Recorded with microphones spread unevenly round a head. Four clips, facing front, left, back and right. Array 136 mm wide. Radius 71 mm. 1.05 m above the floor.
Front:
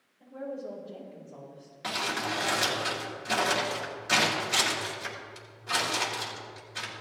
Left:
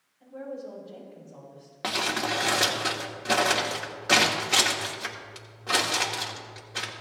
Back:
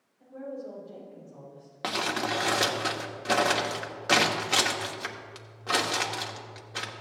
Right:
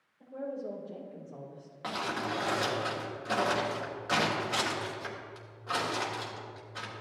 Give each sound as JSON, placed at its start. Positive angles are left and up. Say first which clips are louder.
{"t": 0.2, "sound": "a woman speaking", "louder": "even, front 1 dB", "azimuth_deg": -105, "distance_m": 4.0}
{"t": 1.8, "sound": "crumpling", "louder": "left 5 dB, back 3 dB", "azimuth_deg": 135, "distance_m": 1.3}